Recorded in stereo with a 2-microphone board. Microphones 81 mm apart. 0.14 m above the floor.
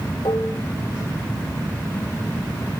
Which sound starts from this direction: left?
Dishes clattering, at 0.2 s.